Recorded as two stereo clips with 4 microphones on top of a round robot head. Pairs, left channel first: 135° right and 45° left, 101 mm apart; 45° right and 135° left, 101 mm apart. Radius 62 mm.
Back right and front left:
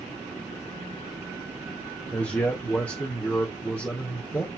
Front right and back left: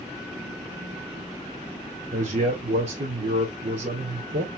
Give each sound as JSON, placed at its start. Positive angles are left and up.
{"t": 2.1, "sound": "a man speaking", "azimuth_deg": 150, "distance_m": 2.5}